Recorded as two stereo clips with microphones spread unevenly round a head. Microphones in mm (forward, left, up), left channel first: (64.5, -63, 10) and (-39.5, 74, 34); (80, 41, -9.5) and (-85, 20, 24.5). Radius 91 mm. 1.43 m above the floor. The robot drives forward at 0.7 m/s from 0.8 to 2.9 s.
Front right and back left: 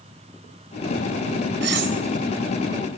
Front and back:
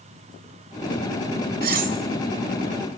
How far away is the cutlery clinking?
About 3.5 m.